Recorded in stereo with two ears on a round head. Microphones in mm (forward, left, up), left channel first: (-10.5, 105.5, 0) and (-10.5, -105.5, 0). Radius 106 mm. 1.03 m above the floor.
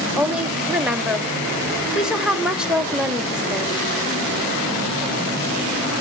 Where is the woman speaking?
5° right (ahead or behind), 1.8 m.